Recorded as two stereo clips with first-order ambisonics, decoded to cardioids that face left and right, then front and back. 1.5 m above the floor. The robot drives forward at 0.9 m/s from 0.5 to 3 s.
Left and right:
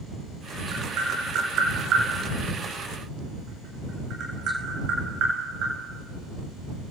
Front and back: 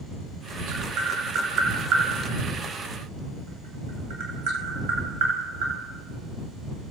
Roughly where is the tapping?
Behind right.